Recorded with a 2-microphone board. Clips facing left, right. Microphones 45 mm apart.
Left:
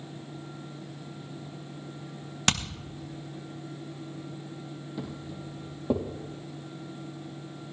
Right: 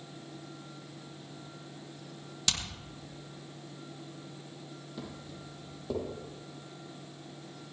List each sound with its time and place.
2.5 s hammering: 45° left (ahead or behind), 1.1 m
5.0 s footsteps: 5° left (ahead or behind), 3 m; by 6.0 s 30° left (ahead or behind), 3.5 m